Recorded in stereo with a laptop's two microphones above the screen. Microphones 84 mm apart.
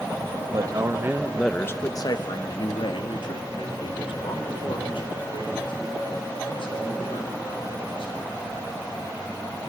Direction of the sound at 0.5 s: 50° right (ahead or behind).